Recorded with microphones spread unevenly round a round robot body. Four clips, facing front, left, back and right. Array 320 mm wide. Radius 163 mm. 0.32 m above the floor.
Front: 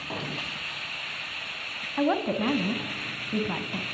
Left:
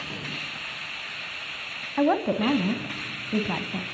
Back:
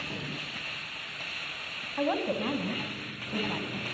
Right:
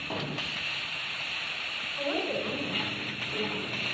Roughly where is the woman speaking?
Ahead left.